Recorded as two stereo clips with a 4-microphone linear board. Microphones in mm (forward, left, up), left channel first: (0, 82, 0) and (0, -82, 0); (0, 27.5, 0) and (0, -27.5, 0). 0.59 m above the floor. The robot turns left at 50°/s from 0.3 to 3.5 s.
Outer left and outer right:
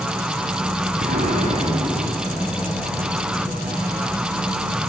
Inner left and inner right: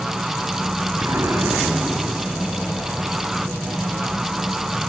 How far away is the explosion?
About 5.5 m.